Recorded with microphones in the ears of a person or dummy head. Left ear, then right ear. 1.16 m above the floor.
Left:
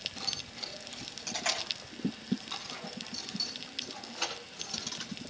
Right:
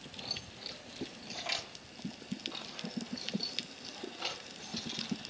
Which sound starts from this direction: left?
Keys jangling, at 0.2 s.